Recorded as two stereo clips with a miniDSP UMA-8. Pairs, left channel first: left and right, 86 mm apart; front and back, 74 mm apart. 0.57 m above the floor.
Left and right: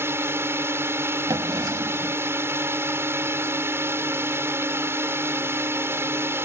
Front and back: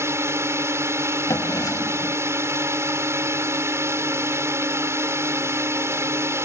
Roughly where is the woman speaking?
I don't hear a woman speaking.